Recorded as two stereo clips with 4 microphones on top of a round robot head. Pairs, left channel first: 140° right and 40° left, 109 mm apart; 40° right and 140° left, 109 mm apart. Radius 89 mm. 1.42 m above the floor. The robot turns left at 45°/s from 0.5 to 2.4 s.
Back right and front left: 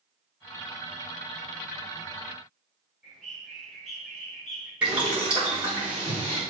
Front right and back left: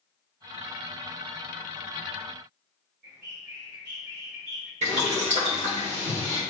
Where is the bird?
130° left, 2.5 m.